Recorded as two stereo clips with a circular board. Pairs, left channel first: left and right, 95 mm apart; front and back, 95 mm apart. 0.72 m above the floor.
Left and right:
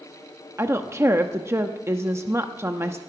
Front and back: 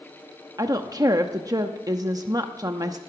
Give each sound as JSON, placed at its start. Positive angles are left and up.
{"t": 0.6, "sound": "a woman speaking", "azimuth_deg": -145, "distance_m": 0.8}